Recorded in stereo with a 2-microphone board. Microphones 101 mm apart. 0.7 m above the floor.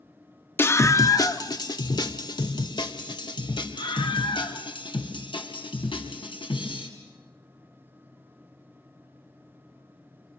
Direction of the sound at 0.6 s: 25° left (ahead or behind).